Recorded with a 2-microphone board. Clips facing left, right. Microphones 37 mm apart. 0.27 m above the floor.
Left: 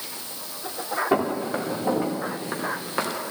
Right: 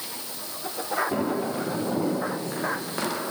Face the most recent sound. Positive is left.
turn(degrees=25)  # may be behind; listen again after turning